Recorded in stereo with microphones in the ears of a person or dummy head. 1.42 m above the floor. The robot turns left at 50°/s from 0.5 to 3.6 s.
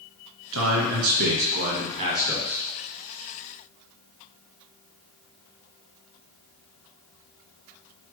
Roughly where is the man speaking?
Right.